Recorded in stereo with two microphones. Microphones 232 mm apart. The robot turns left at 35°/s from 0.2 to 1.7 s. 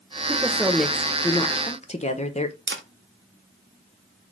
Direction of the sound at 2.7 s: 55° right (ahead or behind).